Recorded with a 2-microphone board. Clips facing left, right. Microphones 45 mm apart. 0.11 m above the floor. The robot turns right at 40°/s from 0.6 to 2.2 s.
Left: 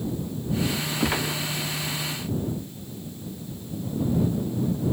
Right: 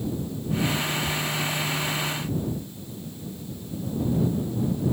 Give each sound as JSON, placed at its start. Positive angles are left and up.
{"t": 1.0, "sound": "a gunshot", "side_deg": 85}